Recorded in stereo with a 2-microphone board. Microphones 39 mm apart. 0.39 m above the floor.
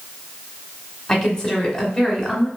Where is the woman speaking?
15° left (ahead or behind), 1.0 m.